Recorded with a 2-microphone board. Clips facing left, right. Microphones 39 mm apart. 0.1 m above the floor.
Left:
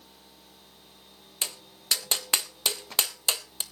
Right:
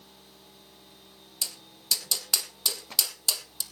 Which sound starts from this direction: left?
Tapping, at 1.4 s.